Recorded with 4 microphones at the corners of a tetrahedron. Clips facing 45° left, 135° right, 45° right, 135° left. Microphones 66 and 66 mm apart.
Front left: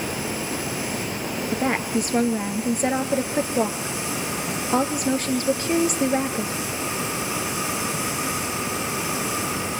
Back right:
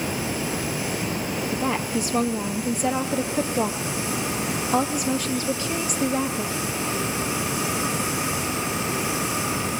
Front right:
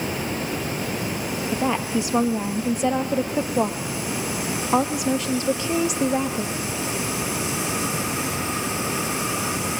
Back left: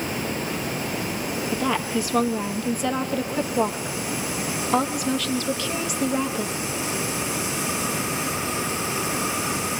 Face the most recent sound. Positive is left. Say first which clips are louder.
# front left 3 dB, front right 1 dB
turn(degrees=15)